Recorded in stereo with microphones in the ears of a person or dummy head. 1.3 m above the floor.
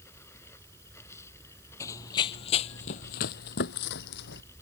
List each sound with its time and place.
0.0 s running water: 10° left (ahead or behind)
1.8 s running footsteps: 15° left (ahead or behind); by 4.4 s 60° left (ahead or behind)